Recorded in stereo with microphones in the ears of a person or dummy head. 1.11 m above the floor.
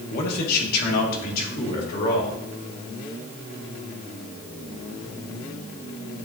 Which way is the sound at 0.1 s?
55° left (ahead or behind).